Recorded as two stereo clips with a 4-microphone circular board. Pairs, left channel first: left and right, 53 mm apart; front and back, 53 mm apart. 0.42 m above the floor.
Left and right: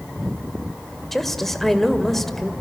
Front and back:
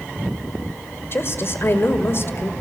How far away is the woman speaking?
About 1.7 m.